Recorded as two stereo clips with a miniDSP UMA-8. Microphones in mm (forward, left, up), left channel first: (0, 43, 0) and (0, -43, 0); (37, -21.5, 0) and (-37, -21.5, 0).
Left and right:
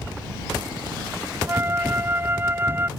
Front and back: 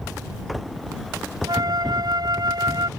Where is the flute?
155° right.